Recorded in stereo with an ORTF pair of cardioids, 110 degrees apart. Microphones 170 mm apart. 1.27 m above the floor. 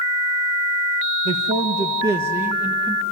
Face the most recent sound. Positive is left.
turn(degrees=0)